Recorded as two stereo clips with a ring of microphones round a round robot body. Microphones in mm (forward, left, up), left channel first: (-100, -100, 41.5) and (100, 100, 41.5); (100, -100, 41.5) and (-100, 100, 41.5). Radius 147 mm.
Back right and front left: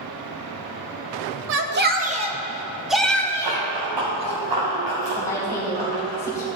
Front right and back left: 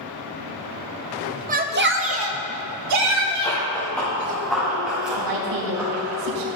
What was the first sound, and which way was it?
A shout, 80° left.